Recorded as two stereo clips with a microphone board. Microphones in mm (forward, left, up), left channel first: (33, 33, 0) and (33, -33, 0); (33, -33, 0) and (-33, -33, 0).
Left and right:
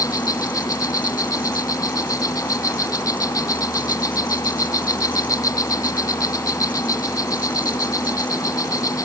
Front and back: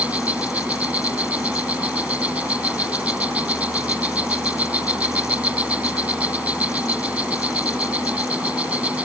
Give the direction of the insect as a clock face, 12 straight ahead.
8 o'clock.